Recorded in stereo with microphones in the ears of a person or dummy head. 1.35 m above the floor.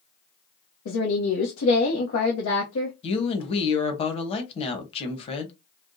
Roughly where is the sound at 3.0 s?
Left.